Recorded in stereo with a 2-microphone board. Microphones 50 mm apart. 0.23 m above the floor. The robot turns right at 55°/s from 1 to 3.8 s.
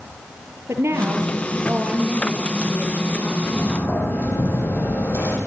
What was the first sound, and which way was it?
A woman speaking, 65° right.